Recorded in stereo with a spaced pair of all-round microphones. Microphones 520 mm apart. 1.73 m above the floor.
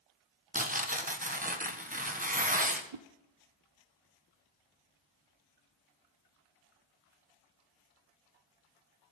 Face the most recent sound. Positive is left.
turn(degrees=-70)  # may be behind; listen again after turning